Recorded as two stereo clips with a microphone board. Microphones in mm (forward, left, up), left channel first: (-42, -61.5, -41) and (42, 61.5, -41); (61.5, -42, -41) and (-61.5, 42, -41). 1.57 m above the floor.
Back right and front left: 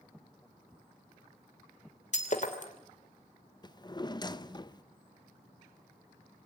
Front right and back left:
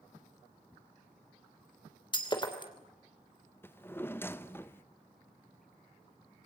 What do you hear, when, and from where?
2.1 s breaking glass: 90° right, 3 m
3.6 s a drawer: 95° right, 0.8 m